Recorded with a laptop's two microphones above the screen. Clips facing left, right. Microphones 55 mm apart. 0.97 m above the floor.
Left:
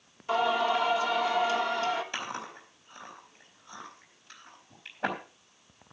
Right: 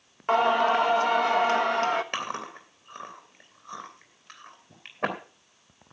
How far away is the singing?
About 1.2 m.